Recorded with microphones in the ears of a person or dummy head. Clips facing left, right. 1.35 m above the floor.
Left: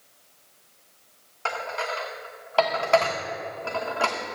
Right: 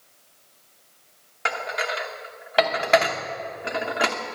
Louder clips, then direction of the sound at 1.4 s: Right 1 dB; 25° right (ahead or behind).